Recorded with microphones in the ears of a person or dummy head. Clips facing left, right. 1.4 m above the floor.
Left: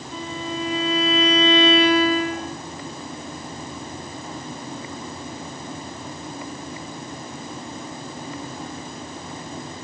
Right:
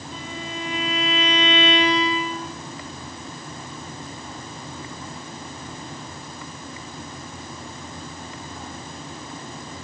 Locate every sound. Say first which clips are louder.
0.1 s a violin: left 5 dB; 55° left (ahead or behind), 2 m